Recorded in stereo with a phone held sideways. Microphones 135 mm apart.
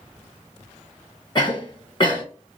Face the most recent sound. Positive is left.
turn(degrees=35)  # may be behind; listen again after turning